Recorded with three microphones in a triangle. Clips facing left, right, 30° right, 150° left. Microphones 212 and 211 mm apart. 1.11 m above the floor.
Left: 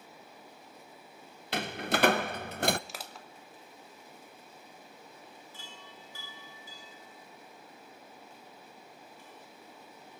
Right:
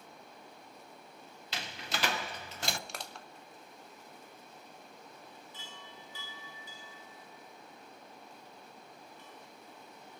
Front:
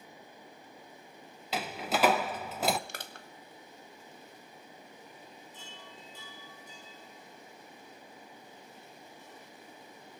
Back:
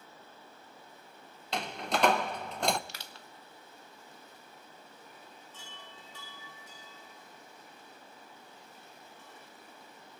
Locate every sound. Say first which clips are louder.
1.5 s a door slam: left 10 dB, front 1 dB; 55° left, 0.5 m
2.9 s crushing: even, front 4 dB; 5° left, 0.9 m
5.5 s a chime: even, front 2 dB; 135° left, 8.5 m